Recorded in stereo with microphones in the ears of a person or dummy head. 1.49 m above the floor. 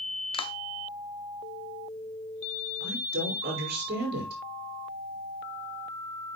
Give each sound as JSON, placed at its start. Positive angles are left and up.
{"t": 0.3, "sound": "a clap", "side_deg": 30, "distance_m": 0.7}
{"t": 2.8, "sound": "a woman speaking", "side_deg": -70, "distance_m": 5.5}